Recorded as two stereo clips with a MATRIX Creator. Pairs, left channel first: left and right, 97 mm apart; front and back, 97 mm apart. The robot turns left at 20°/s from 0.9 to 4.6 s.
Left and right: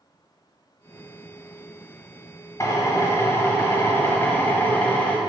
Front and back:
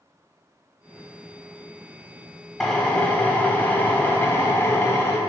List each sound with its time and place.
2.6 s a drill: 75° left, 0.9 m; by 5.2 s 35° left, 0.9 m